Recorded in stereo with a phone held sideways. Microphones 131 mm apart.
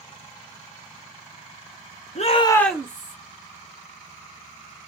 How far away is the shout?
About 0.9 m.